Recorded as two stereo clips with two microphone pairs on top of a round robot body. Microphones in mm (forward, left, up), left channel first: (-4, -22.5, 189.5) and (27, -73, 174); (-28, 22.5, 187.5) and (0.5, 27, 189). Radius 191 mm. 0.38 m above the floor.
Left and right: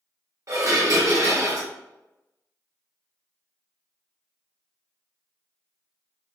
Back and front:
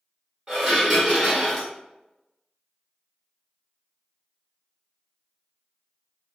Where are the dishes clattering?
60° right, 2 m.